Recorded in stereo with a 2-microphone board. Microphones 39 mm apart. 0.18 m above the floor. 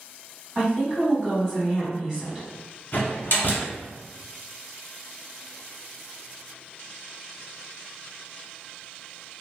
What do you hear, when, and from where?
0.6 s a woman speaking: 15° right (ahead or behind), 1.5 m
2.9 s a door slam: 45° left (ahead or behind), 1.1 m